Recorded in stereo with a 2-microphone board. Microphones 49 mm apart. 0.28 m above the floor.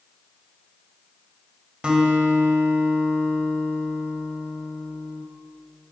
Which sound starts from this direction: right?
A guitar, at 1.8 s.